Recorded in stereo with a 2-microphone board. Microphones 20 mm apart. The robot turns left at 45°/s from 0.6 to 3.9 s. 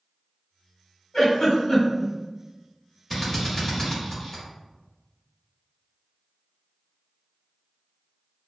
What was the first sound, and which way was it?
A giggle, 45° left (ahead or behind).